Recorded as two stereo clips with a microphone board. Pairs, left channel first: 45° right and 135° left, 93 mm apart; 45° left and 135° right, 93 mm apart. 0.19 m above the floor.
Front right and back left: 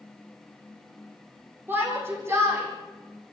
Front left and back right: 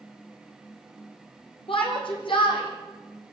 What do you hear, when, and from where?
1.7 s a shout: 70° left, 8 m; by 3.3 s 80° left, 8.5 m